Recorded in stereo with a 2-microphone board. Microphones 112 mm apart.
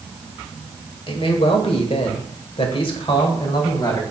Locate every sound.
1.1 s a man speaking: 50° left (ahead or behind), 2.0 m; by 4.0 s 35° left (ahead or behind), 2.5 m